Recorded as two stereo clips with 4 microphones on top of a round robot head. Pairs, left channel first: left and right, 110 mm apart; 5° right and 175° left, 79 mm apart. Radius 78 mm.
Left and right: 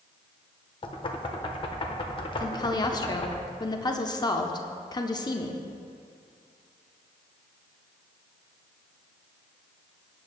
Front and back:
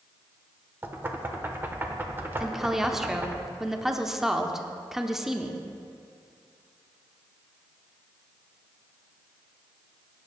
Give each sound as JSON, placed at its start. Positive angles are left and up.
{"t": 0.8, "sound": "knocking", "azimuth_deg": 120, "distance_m": 1.1}
{"t": 2.4, "sound": "a woman speaking", "azimuth_deg": 95, "distance_m": 0.8}